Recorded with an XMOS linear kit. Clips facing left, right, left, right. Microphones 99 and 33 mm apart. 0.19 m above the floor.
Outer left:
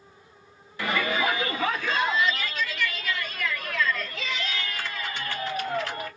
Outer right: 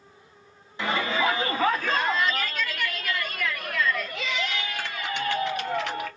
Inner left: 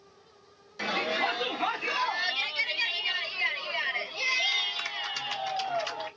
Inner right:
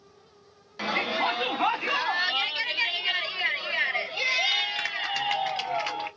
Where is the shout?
25° right (ahead or behind), 1.5 m; by 6.1 s 70° right (ahead or behind), 4 m.